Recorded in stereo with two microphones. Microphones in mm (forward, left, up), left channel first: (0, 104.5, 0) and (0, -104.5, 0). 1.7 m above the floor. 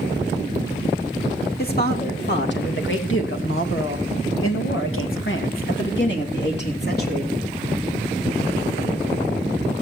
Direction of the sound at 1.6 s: 50° left (ahead or behind).